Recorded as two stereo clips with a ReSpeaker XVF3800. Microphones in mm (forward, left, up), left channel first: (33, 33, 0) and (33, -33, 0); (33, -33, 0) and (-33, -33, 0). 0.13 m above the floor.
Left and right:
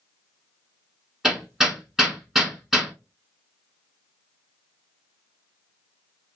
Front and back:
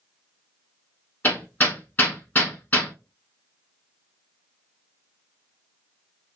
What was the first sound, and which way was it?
Hammering, 15° right.